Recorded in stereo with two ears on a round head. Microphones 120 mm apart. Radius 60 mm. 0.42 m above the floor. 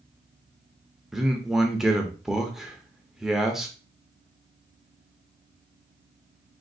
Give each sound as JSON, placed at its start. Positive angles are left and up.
{"t": 1.1, "sound": "a man speaking", "side_deg": -5, "distance_m": 0.7}